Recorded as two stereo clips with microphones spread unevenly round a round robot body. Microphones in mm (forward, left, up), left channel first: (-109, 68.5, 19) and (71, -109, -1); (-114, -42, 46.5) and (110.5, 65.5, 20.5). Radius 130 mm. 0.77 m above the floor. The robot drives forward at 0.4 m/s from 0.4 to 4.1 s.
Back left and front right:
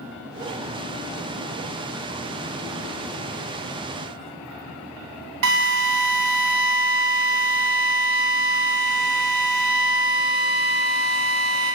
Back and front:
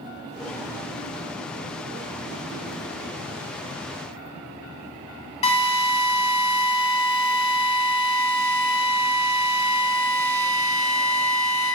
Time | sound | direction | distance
5.4 | a drill | 85° right | 2 m